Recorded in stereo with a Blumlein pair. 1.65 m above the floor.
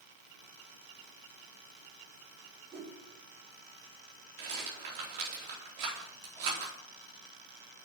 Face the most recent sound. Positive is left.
turn(degrees=-45)